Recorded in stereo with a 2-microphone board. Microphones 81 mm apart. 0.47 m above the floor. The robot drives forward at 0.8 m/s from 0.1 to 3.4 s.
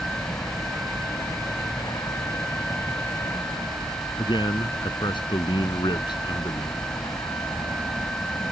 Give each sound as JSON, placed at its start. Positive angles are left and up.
{"t": 0.0, "sound": "a helicopter", "side_deg": 50}
{"t": 4.2, "sound": "a man speaking", "side_deg": 75}